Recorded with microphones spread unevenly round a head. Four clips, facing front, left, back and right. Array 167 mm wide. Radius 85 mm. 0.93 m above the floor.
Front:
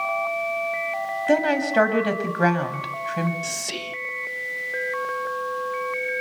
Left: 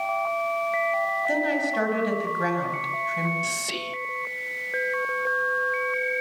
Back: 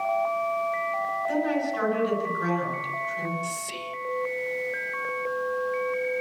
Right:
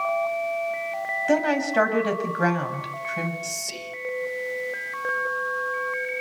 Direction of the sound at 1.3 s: 25° right.